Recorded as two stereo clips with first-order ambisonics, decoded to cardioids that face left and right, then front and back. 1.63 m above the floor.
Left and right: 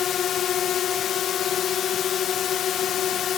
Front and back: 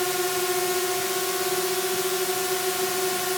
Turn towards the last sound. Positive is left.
turn(degrees=85)